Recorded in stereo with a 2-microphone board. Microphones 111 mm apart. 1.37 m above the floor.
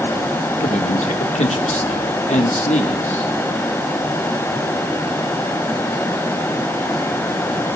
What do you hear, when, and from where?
0.6 s a man speaking: 75° left (ahead or behind), 1.2 m